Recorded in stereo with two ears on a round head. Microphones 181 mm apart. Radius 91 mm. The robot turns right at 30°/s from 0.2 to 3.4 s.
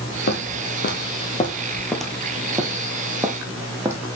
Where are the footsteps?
60° left (ahead or behind), 1.4 m; by 4.0 s 15° right (ahead or behind), 1.3 m.